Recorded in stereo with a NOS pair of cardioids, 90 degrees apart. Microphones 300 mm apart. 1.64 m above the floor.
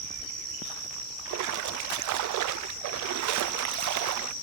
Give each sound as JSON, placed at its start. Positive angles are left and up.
{"t": 1.2, "sound": "a splash", "azimuth_deg": -70, "distance_m": 0.7}